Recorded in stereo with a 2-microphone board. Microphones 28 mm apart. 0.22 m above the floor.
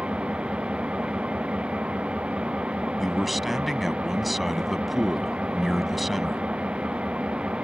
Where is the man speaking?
5° right (ahead or behind).